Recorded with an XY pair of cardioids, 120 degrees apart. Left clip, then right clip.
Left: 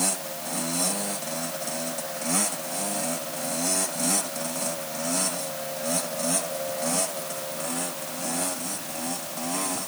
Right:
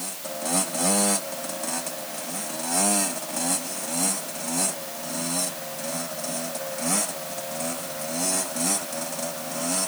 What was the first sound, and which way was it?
Only background noise.